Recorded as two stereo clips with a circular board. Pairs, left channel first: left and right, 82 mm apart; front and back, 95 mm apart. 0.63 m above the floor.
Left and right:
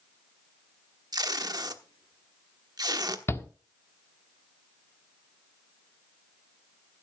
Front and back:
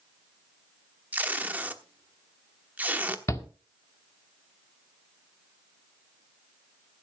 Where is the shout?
45° left, 1.7 m.